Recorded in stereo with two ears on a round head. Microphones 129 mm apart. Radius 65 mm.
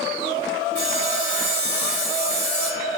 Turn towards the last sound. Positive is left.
turn(degrees=-25)  # may be behind; listen again after turning